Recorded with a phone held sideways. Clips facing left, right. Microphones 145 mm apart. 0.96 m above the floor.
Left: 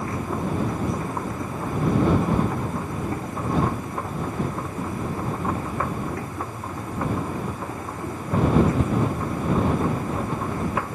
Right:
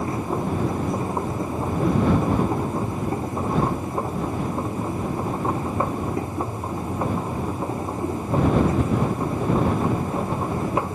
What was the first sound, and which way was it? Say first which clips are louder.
A machine running: right 2 dB; 25° right (ahead or behind).